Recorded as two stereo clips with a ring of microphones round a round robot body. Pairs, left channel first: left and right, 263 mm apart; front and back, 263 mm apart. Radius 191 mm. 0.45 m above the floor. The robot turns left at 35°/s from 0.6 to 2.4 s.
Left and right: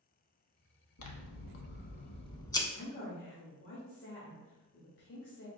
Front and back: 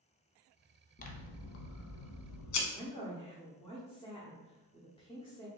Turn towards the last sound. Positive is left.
turn(degrees=65)